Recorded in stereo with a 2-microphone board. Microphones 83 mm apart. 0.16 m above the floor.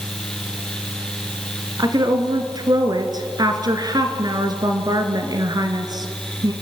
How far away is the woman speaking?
About 2 m.